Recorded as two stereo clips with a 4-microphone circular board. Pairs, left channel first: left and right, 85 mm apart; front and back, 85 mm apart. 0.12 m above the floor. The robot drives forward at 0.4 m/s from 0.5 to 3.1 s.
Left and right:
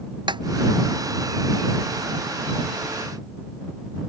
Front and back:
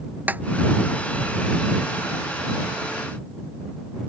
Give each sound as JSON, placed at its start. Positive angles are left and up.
{"t": 0.3, "sound": "a snare drum", "azimuth_deg": -110}